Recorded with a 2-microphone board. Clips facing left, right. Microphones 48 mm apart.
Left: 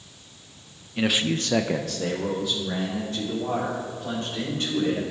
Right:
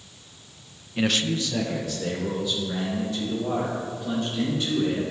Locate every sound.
1.0 s a man speaking: 5° right (ahead or behind), 0.6 m; by 5.0 s 55° left (ahead or behind), 4 m